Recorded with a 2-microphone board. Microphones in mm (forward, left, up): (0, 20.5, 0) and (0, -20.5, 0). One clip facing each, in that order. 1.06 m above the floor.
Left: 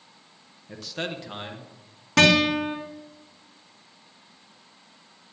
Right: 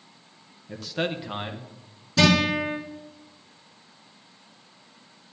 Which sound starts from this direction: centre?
A man speaking, at 0.7 s.